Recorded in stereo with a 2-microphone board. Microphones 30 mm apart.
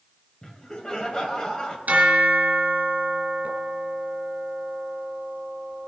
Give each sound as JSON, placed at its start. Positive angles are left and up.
{"t": 0.4, "sound": "laughter", "side_deg": 30, "distance_m": 2.5}
{"t": 1.9, "sound": "a bell", "side_deg": -65, "distance_m": 3.0}